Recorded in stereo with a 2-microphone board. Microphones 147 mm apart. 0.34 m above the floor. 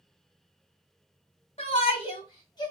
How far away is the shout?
About 1.6 m.